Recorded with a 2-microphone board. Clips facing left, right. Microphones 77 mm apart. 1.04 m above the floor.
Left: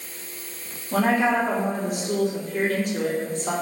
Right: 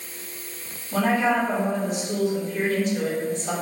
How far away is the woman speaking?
About 0.7 m.